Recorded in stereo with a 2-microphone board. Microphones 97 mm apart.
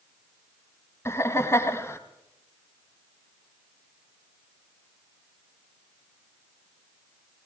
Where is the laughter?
25° left (ahead or behind), 2 m.